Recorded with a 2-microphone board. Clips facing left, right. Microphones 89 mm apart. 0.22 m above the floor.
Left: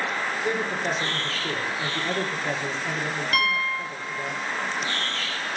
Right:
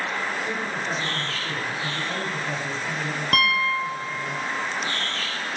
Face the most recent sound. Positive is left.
turn(degrees=-50)  # may be behind; listen again after turning